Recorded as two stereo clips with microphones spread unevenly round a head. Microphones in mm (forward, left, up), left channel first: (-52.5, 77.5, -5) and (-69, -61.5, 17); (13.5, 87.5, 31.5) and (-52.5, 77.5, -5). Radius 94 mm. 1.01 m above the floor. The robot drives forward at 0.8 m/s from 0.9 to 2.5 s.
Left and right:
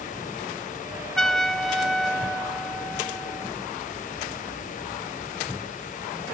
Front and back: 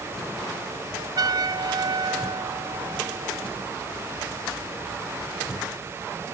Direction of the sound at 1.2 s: 170° left.